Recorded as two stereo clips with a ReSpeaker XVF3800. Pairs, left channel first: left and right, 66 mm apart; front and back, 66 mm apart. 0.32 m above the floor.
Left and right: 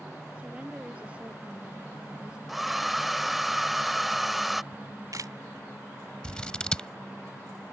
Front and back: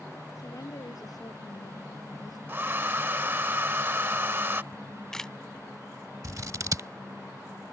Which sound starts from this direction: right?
A camera shutter, at 4.7 s.